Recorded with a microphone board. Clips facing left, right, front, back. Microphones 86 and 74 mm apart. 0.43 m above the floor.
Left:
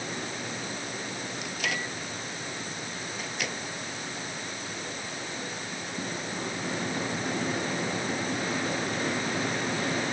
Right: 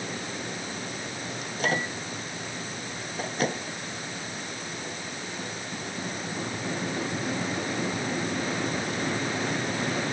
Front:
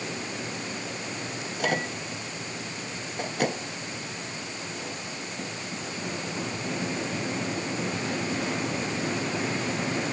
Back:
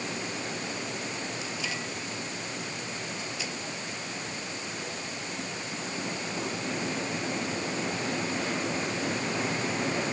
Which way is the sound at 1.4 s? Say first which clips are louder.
Right 7 dB, front 6 dB; 35° right.